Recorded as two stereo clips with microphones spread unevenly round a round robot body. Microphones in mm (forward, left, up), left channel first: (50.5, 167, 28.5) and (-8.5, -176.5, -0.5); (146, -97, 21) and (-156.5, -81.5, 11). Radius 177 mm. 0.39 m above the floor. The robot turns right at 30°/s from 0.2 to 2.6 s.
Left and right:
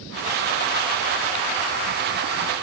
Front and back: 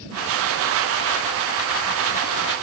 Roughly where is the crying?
I don't hear crying.